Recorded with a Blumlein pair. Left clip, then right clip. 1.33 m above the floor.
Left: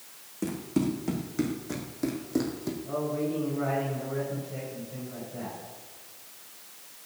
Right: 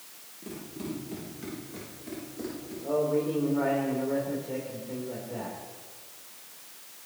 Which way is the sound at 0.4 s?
40° left.